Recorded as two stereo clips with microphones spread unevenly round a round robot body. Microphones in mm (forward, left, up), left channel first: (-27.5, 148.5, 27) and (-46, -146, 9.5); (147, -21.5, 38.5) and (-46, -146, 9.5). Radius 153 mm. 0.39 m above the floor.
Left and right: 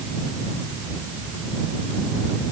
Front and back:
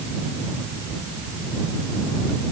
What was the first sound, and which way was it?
Only background noise.